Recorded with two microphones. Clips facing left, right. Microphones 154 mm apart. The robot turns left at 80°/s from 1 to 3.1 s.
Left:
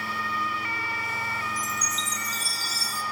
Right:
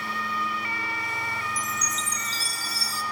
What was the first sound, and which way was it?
A chime, 30° left.